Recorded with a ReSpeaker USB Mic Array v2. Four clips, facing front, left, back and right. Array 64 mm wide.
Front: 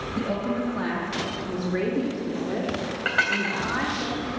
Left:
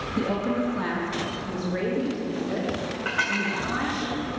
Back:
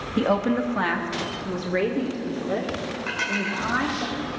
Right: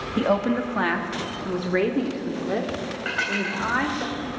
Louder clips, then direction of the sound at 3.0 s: Even, front 4 dB; 5° right.